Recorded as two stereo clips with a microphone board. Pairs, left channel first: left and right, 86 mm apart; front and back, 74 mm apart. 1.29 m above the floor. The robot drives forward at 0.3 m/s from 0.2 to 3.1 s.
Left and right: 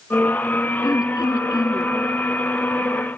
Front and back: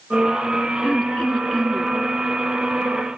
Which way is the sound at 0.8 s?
70° left.